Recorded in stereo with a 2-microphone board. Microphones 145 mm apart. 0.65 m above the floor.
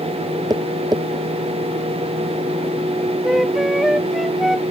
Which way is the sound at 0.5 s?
25° right (ahead or behind).